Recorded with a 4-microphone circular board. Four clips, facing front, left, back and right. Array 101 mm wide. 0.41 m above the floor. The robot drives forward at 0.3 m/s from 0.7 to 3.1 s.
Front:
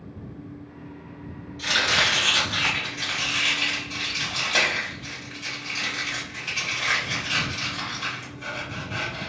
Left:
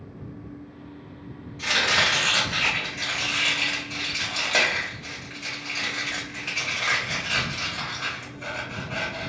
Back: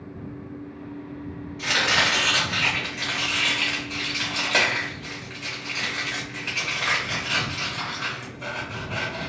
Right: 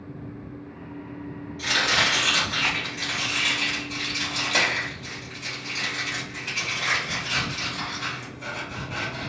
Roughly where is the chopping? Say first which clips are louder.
Even, back 1 dB; behind.